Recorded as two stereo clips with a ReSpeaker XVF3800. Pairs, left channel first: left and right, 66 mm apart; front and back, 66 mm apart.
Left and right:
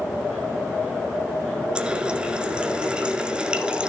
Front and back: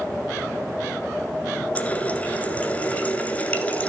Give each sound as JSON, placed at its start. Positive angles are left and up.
{"t": 1.8, "sound": "a running tap", "azimuth_deg": -35, "distance_m": 1.1}